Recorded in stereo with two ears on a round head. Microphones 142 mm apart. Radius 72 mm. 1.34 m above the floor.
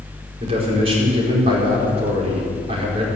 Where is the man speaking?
35° right (ahead or behind), 4.5 m.